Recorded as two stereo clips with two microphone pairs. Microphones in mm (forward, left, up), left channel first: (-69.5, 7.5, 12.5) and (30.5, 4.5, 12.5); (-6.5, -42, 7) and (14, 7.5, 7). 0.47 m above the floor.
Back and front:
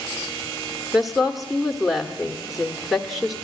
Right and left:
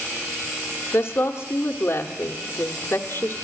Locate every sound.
0.9 s a woman speaking: 95° right, 1.1 m